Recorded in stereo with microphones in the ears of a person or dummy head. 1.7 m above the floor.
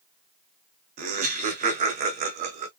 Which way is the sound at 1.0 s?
40° right (ahead or behind).